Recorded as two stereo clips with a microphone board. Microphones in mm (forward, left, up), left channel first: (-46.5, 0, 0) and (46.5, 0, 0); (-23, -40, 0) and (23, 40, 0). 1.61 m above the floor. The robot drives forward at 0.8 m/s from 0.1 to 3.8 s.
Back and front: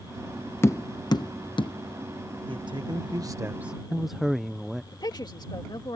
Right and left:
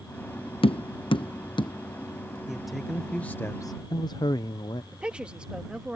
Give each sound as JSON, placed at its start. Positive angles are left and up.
{"t": 0.6, "sound": "tapping", "azimuth_deg": -115}
{"t": 2.5, "sound": "a man speaking", "azimuth_deg": -25}
{"t": 4.9, "sound": "a woman speaking", "azimuth_deg": 140}